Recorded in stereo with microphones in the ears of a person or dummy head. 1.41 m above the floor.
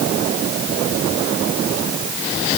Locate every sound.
Only background noise.